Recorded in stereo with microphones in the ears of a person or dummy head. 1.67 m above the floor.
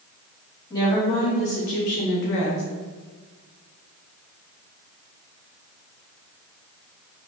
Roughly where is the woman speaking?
Left.